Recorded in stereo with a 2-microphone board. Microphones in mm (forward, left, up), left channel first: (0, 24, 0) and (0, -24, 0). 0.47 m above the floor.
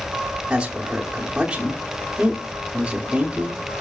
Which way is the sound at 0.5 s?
20° right (ahead or behind).